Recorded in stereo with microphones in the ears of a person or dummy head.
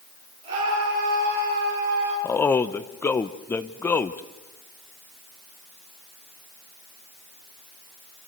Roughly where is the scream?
Right.